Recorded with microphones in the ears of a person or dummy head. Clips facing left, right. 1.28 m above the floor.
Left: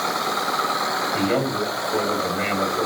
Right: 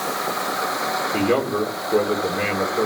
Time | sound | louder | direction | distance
1.1 | a man speaking | right 2 dB | 75° right (ahead or behind) | 4 m